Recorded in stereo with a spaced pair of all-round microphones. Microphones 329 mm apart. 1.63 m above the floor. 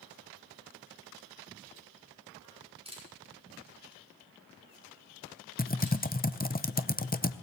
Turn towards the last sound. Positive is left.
turn(degrees=25)  # may be behind; listen again after turning